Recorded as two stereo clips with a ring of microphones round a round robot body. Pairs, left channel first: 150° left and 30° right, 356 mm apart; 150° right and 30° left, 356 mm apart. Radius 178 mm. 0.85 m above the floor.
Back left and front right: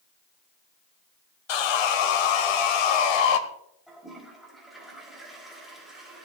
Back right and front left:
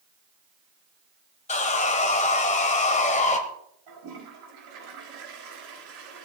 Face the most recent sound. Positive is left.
turn(degrees=60)